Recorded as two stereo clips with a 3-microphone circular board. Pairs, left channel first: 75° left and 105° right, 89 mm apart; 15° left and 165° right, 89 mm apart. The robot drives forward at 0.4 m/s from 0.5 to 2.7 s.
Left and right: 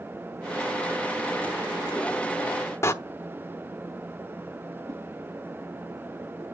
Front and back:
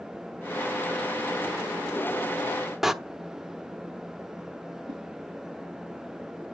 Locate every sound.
2.8 s a door slam: 110° left, 0.7 m
4.9 s a whoosh: 155° right, 3.5 m